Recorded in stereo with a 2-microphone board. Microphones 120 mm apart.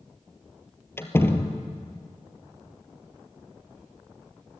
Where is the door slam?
20° left (ahead or behind), 1.8 m.